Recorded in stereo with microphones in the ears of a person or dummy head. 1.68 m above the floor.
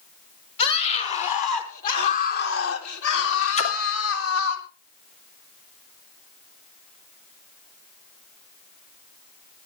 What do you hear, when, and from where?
0.6 s a scream: 35° left (ahead or behind), 4.5 m; by 4.6 s 80° left, 4 m
3.6 s a splash: 35° left (ahead or behind), 2.5 m